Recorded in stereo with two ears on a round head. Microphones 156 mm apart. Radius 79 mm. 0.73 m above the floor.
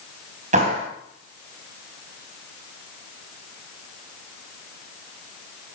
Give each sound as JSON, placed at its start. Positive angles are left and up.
{"t": 0.5, "sound": "a clap", "side_deg": -40, "distance_m": 4.0}